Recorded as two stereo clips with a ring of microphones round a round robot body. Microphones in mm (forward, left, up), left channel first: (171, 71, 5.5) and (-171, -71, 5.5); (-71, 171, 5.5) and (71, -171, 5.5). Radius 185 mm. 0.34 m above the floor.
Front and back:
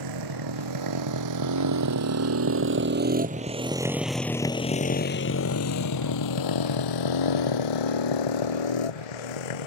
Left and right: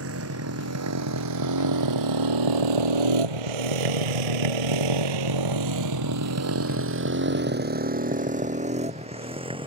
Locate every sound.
0.0 s a motorcycle: 125° right; by 9.7 s 10° left